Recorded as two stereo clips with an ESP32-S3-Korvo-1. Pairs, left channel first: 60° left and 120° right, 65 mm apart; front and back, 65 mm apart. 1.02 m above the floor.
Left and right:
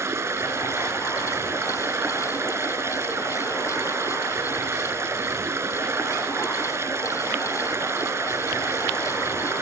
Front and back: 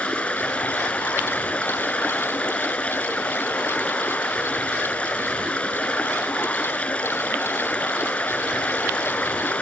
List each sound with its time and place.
0.0 s running water: 70° right